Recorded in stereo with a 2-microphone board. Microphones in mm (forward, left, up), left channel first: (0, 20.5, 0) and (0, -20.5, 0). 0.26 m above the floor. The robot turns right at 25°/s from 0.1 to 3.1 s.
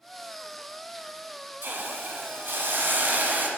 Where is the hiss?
100° right, 1.4 m; by 3.5 s 65° right, 1.4 m.